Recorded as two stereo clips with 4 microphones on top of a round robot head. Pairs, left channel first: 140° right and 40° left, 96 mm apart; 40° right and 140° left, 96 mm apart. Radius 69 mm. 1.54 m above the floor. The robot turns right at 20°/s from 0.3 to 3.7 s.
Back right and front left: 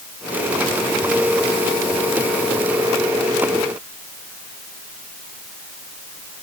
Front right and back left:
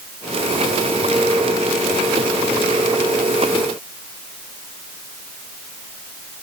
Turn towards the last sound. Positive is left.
No sound to turn to.